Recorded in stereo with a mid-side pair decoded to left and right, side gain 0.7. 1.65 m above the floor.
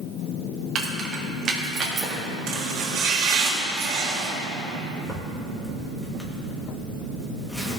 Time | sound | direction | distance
0.8 | keys jangling | 35° right | 1.7 m
2.5 | chopping | 65° right | 3 m
5.0 | a zipper | 15° left | 2.5 m